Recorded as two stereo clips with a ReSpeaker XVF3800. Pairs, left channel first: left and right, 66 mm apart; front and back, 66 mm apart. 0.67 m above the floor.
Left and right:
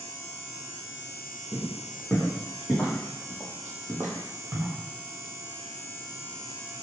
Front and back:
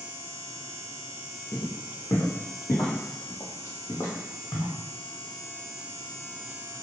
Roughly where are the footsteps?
Ahead.